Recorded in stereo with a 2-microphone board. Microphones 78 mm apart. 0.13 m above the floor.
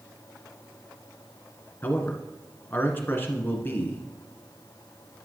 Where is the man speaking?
25° left (ahead or behind), 1.5 m.